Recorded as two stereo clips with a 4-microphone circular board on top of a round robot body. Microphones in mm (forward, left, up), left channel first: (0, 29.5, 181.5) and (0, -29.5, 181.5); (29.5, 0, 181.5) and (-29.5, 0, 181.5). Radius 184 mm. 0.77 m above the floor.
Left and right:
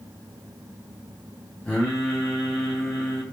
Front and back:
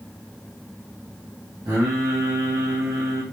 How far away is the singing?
About 0.5 m.